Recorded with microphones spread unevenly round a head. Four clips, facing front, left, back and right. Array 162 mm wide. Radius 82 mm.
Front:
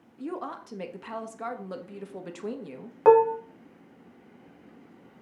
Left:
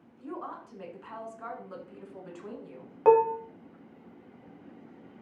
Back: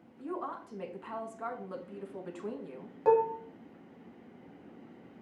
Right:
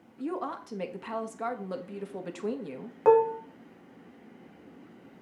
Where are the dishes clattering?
10° left, 0.8 m.